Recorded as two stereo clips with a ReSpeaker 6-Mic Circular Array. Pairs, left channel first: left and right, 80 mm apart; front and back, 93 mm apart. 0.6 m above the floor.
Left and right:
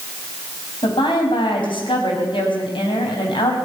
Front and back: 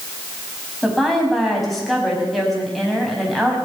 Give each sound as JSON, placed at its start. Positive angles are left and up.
{"t": 0.8, "sound": "a woman speaking", "azimuth_deg": 90, "distance_m": 4.5}